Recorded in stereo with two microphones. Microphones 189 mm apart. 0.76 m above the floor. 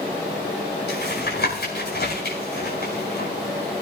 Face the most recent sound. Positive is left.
turn(degrees=75)  # may be behind; listen again after turning